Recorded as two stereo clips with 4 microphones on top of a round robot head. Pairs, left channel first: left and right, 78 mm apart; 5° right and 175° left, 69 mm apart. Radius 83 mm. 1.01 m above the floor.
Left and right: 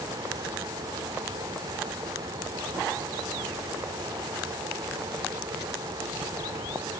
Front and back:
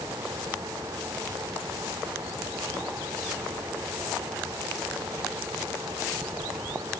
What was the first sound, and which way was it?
Only background noise.